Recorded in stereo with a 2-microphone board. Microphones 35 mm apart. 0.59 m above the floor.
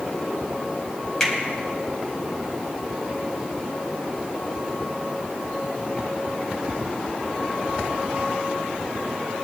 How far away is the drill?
No drill in this recording.